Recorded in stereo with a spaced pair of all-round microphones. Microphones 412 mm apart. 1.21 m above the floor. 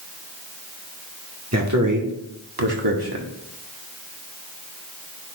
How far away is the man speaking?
About 1.7 m.